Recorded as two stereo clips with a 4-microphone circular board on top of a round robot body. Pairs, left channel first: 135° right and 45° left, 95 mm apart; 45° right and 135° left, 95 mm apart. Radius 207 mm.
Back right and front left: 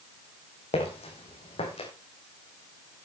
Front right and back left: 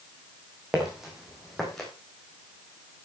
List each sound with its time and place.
0.7 s footsteps: 140° right, 3 m; by 1.9 s 130° right, 3.5 m